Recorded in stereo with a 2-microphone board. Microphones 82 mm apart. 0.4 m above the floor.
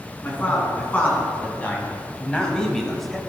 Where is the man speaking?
20° left (ahead or behind), 4 m; by 3.2 s centre (ahead or behind), 1.5 m.